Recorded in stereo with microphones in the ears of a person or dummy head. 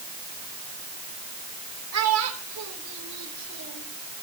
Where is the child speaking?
80° right, 2.5 m.